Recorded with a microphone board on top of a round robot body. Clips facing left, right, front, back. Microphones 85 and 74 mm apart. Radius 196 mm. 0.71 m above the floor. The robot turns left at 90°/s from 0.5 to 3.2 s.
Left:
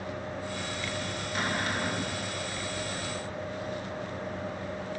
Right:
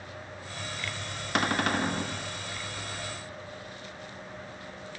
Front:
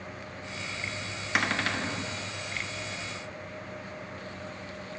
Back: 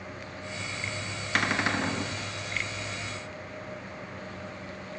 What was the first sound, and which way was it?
A cupboard door, 85° right.